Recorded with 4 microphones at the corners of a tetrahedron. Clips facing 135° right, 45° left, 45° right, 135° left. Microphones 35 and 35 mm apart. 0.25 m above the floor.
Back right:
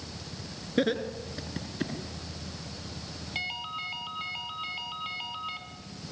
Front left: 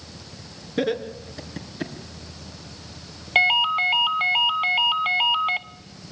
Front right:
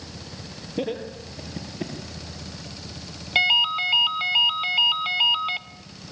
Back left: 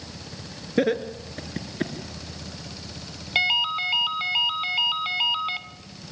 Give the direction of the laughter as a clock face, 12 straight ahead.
7 o'clock.